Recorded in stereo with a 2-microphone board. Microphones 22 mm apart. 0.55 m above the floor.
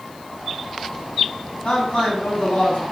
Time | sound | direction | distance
1.6 | a man speaking | 60° left (ahead or behind) | 4 m